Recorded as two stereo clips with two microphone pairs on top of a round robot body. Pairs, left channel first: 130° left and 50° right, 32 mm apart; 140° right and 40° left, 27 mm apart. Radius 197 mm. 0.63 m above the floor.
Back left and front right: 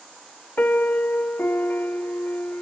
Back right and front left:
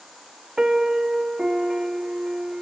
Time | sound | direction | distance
0.6 | a piano | 115° left | 0.9 m